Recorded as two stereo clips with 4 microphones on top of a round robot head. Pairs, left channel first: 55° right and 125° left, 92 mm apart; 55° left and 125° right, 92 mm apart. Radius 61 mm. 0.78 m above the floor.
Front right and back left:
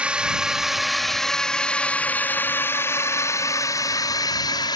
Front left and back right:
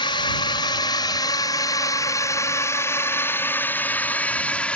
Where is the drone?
50° left; by 4.8 s 20° right.